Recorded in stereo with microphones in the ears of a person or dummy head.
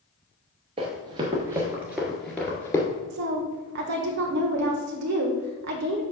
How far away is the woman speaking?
About 1.2 m.